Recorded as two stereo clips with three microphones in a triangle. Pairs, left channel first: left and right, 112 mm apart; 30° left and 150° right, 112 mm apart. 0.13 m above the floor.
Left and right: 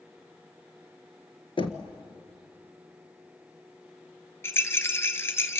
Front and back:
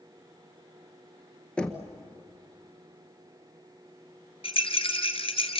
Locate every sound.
1.6 s knocking: 110° left, 1.5 m
4.4 s a rattle: 25° left, 1.5 m